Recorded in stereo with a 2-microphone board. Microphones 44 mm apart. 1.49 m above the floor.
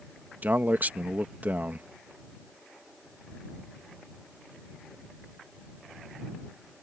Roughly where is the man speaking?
Right.